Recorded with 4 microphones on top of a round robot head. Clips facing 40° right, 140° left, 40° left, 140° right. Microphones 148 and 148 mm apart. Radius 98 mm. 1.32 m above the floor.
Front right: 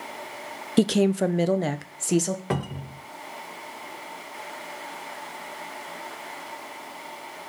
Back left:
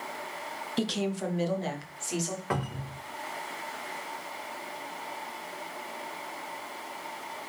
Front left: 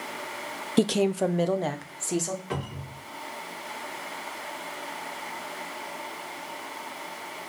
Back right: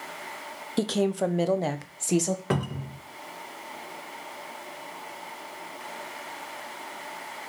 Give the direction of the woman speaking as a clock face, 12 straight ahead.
1 o'clock.